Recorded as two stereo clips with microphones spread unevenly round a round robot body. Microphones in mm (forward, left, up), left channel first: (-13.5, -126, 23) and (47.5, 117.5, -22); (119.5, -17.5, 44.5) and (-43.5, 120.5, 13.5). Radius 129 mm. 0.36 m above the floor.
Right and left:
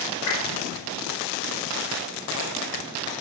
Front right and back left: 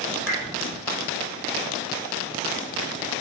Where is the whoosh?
135° right, 5 m.